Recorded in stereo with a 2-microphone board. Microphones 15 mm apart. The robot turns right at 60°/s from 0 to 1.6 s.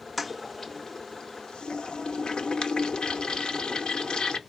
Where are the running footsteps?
I don't hear running footsteps.